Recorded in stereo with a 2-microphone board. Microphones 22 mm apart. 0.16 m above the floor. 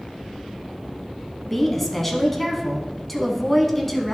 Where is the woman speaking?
10° left (ahead or behind), 1.1 m.